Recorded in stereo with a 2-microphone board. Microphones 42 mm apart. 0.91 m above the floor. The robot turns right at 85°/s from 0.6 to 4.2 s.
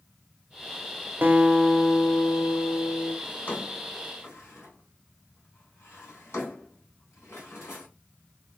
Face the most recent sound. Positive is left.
turn(degrees=70)  # may be behind; listen again after turning